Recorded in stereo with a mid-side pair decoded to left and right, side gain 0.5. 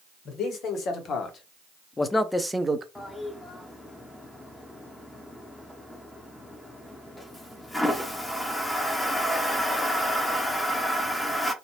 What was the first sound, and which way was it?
A man speaking, 65° left.